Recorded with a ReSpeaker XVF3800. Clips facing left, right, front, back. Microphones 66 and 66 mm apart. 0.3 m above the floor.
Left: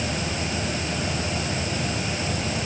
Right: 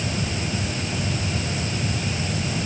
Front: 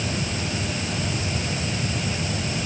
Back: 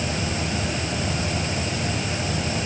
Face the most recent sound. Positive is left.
No sound to turn to.